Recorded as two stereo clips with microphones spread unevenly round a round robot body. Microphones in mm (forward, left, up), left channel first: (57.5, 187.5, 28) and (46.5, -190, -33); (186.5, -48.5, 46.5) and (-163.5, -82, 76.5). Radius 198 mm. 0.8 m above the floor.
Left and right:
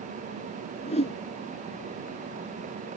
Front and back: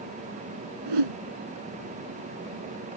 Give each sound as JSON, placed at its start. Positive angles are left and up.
{"t": 0.9, "sound": "a whoosh", "azimuth_deg": 160}